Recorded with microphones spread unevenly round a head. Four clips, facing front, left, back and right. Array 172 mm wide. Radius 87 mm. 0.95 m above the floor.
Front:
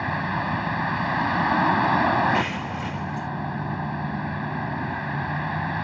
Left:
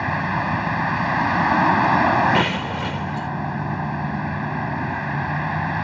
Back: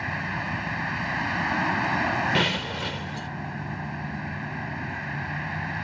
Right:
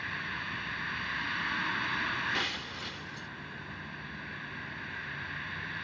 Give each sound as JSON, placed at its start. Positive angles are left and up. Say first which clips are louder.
{"t": 0.0, "sound": "a vehicle", "louder": "left 17 dB, front 5 dB", "azimuth_deg": 65}
{"t": 2.3, "sound": "breaking glass", "louder": "left 17 dB, front 1 dB", "azimuth_deg": 110}